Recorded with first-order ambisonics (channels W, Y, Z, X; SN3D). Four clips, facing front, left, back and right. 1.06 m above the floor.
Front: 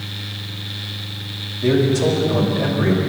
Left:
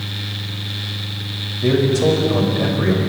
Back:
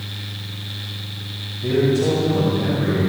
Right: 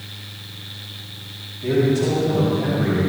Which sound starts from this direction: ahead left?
A man speaking, at 1.6 s.